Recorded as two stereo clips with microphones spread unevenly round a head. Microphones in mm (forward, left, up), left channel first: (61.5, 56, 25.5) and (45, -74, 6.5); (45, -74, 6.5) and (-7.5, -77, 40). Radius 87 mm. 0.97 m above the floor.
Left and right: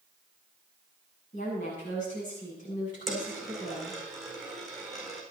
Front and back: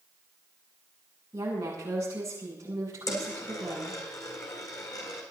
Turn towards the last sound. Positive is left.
turn(degrees=-5)